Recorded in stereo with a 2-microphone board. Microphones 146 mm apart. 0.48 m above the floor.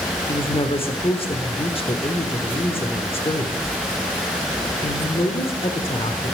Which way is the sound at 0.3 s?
40° left (ahead or behind).